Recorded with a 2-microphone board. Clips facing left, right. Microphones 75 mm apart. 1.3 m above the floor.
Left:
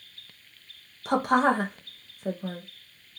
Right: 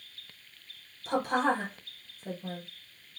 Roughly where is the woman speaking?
Left.